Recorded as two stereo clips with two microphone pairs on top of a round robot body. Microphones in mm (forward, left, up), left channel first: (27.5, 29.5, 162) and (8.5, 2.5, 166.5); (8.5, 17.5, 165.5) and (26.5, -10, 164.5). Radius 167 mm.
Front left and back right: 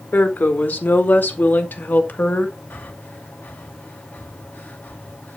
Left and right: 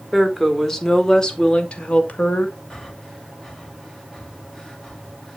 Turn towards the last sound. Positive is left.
turn(degrees=45)